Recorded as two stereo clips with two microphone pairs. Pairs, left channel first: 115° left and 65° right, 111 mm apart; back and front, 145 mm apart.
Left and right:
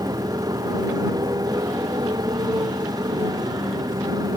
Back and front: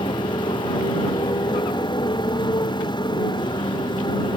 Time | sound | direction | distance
0.0 | a motorcycle | 120° right | ?